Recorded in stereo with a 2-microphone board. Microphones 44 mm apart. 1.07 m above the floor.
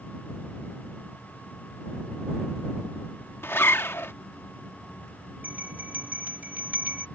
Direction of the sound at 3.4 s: 70° left (ahead or behind).